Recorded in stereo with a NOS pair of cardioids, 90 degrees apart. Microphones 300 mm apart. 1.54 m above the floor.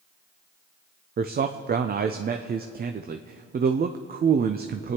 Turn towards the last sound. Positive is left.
turn(degrees=-30)